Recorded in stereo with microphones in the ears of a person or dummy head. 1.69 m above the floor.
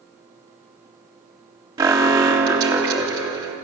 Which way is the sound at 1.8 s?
20° right (ahead or behind).